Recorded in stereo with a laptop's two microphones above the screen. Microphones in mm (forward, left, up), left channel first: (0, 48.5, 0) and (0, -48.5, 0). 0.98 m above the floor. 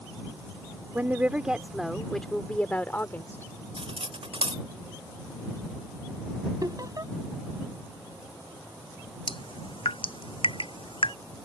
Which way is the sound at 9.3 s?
70° left (ahead or behind).